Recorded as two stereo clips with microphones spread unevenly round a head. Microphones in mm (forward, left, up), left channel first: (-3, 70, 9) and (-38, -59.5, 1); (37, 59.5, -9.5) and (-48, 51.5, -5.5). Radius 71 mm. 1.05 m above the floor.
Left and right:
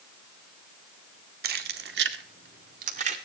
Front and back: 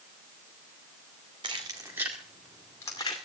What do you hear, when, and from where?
1.4 s keys jangling: 115° right, 2 m; by 3.2 s 55° right, 2 m